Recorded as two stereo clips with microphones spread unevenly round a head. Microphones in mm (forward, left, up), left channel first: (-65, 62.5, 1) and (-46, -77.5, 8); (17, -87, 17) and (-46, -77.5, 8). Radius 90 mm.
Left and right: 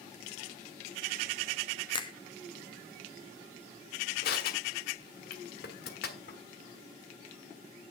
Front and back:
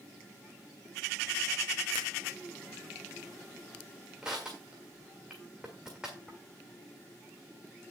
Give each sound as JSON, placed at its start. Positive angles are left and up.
{"t": 1.9, "sound": "a finger snap", "azimuth_deg": 155, "distance_m": 1.1}
{"t": 4.2, "sound": "crushing", "azimuth_deg": 85, "distance_m": 1.4}